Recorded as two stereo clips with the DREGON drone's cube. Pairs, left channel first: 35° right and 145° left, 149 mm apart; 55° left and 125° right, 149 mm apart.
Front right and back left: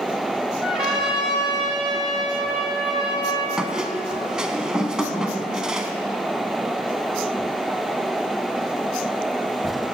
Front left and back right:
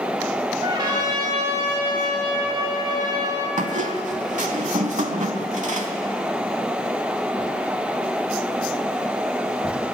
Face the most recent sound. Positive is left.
turn(degrees=-130)